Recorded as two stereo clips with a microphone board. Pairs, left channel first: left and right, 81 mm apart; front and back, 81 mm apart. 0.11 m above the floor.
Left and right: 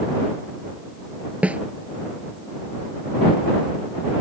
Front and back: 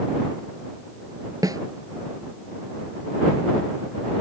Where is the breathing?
I don't hear breathing.